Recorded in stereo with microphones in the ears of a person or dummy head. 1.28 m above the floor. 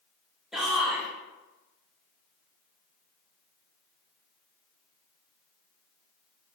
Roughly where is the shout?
Centre.